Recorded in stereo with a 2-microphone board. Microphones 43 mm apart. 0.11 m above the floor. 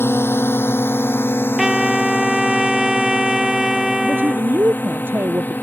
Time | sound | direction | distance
0.0 | a drone | 70° left (ahead or behind) | ?
1.6 | a trumpet | 10° right (ahead or behind) | ?
4.0 | a man speaking | 55° right (ahead or behind) | ?